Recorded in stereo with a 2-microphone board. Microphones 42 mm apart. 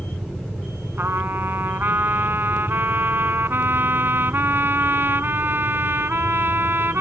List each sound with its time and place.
1.0 s a trumpet: 55° right (ahead or behind)